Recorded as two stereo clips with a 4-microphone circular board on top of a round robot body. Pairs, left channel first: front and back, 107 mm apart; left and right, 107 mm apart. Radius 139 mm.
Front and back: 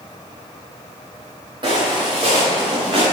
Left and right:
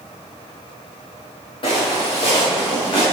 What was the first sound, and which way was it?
Footsteps, 135° left.